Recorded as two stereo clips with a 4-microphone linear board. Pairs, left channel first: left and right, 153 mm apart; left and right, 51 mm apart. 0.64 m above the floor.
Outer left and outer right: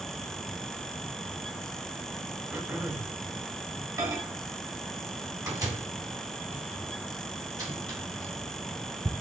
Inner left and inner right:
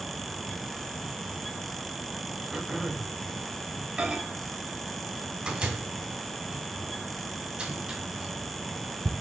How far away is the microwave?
About 2 m.